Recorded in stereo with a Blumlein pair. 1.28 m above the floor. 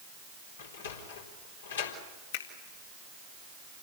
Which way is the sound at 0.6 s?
65° left.